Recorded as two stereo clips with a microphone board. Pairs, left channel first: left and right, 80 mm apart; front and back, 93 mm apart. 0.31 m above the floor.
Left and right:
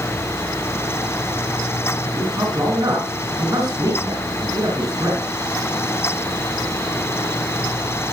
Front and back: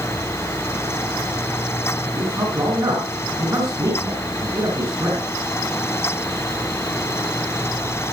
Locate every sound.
2.1 s a man speaking: 125° right, 4 m